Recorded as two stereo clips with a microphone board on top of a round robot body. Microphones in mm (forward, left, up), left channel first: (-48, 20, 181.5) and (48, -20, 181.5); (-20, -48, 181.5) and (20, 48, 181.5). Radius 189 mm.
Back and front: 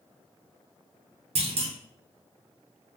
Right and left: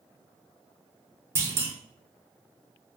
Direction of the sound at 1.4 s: Straight ahead.